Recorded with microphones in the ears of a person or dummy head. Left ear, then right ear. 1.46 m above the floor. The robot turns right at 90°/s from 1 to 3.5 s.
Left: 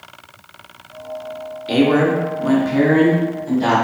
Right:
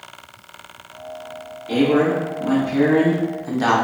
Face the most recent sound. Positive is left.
turn(degrees=-135)